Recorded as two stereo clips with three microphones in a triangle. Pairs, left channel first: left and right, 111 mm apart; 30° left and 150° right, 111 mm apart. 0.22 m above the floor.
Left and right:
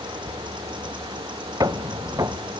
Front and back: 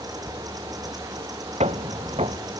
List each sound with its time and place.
1.6 s footsteps: 145° right, 0.7 m